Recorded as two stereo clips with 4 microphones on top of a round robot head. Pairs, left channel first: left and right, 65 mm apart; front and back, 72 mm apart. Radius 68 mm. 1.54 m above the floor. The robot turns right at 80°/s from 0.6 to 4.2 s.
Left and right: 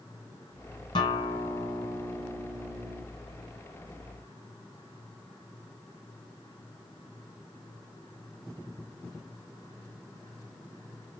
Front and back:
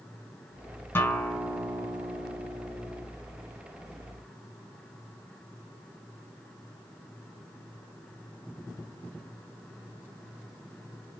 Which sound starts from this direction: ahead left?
A guitar, at 0.9 s.